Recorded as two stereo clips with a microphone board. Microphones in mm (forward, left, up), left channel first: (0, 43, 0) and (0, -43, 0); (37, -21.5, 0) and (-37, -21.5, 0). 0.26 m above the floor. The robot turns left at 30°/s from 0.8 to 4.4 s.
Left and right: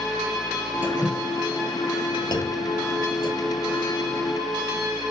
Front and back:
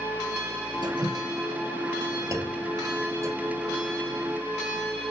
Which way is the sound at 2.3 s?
125° left.